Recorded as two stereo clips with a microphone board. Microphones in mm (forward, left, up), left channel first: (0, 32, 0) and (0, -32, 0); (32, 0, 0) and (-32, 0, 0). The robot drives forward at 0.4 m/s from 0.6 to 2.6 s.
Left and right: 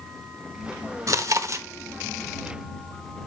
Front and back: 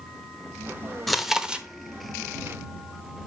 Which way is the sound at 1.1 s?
90° right.